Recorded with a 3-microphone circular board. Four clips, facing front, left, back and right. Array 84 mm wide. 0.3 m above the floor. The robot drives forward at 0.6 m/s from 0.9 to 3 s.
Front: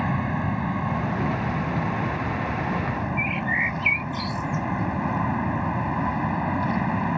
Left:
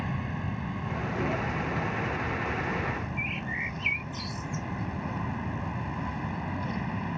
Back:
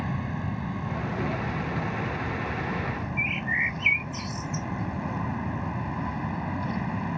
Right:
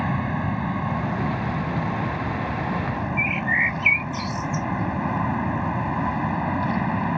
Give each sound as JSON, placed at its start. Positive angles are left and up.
{"t": 0.0, "sound": "an aircraft", "azimuth_deg": -55}
{"t": 3.2, "sound": "a bird", "azimuth_deg": -80}